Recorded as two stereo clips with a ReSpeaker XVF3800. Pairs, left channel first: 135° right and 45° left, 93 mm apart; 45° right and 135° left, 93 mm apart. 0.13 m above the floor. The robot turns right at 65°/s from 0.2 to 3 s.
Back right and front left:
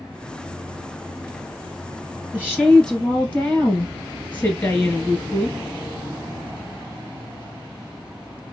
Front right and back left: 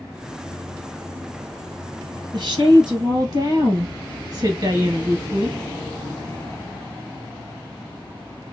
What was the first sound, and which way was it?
A woman speaking, 110° left.